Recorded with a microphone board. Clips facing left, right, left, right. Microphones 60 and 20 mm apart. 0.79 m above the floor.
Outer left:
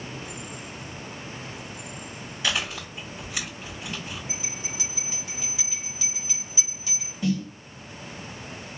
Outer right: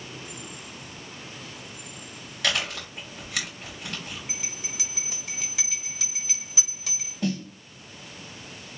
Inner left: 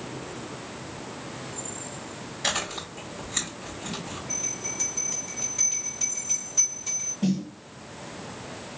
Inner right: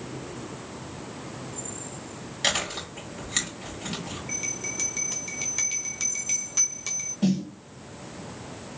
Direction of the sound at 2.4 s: 80° right.